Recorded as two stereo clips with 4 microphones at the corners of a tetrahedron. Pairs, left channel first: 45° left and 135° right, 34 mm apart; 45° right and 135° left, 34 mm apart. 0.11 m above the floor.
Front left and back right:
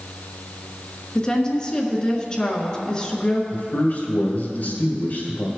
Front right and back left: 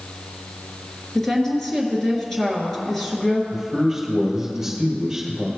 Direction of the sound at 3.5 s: 60° left.